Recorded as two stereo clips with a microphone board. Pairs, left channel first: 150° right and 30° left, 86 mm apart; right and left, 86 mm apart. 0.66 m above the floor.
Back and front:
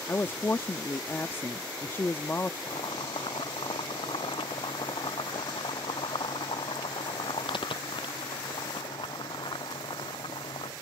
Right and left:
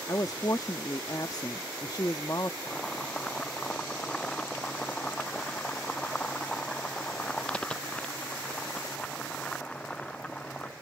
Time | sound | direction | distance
0.1 | a woman speaking | 100° right | ?
2.7 | boiling | 170° right | ?